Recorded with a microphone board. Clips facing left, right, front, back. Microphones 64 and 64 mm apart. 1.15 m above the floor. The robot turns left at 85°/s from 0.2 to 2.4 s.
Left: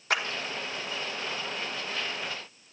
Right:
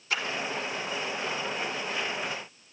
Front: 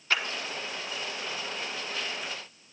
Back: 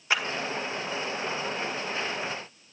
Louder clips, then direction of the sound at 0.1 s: Left 3 dB, back 1 dB; 105° left.